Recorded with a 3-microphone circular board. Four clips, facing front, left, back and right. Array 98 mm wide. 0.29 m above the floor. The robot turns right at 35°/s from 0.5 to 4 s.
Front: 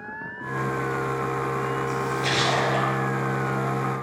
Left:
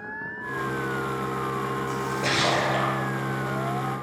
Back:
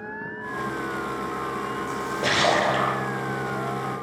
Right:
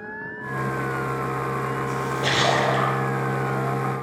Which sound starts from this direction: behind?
A splash, at 1.9 s.